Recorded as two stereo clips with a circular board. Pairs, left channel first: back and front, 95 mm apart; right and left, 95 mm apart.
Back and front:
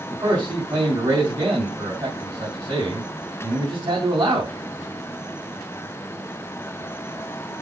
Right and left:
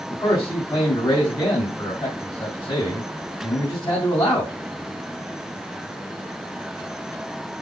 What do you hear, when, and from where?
0.1 s a man speaking: 50° right, 3.5 m